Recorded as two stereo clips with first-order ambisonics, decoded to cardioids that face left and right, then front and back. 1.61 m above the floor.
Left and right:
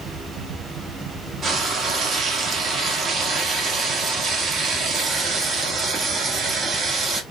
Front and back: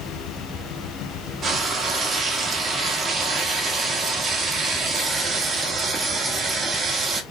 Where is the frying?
135° right, 0.6 m.